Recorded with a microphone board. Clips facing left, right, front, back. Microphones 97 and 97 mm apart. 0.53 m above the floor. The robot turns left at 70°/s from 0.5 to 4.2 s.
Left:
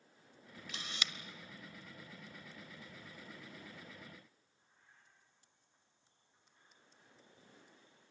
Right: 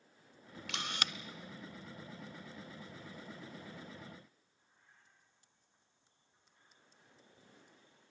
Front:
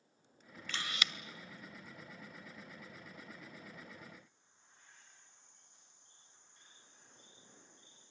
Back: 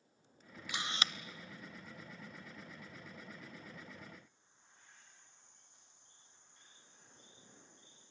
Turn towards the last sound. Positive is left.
turn(degrees=10)